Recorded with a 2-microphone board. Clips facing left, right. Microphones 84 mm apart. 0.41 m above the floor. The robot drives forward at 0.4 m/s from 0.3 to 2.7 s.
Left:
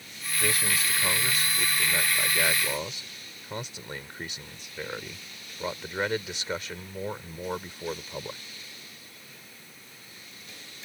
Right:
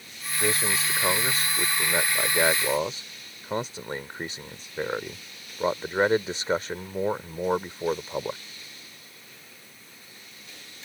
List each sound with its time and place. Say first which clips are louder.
0.4 s a man speaking: right 3 dB; 30° right (ahead or behind); by 8.4 s 35° right (ahead or behind)